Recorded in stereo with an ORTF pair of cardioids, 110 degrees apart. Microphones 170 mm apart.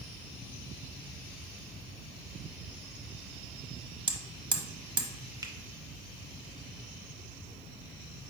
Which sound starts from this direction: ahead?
A finger snap, at 5.4 s.